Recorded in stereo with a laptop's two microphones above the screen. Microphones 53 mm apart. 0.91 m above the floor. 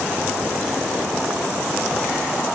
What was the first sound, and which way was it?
Only background noise.